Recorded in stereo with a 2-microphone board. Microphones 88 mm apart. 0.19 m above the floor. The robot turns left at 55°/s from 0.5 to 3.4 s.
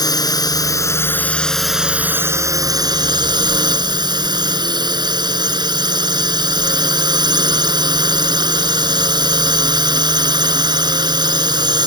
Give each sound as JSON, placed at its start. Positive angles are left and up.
{"t": 0.0, "sound": "a drone", "azimuth_deg": 65}